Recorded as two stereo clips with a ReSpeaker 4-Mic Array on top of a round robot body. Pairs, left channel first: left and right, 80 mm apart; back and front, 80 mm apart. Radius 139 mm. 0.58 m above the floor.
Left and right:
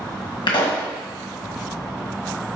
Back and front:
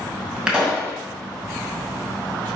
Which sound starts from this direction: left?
A pop, at 0.5 s.